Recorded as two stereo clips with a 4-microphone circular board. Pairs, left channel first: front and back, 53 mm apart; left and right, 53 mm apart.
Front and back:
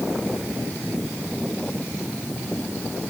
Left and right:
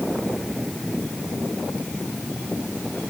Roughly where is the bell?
I don't hear a bell.